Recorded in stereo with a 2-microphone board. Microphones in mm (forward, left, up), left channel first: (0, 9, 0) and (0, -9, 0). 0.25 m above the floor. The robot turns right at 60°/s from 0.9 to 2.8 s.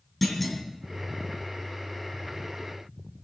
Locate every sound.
0.2 s a clunk: 5° left (ahead or behind), 2.5 m